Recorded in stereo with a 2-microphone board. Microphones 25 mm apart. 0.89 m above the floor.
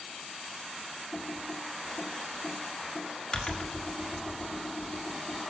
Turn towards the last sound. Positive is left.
turn(degrees=25)  # may be behind; listen again after turning